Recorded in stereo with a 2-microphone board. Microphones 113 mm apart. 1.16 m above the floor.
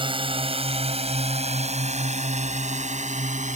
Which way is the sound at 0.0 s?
45° right (ahead or behind).